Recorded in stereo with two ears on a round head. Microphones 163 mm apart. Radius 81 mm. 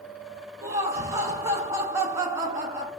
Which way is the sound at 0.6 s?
15° right (ahead or behind).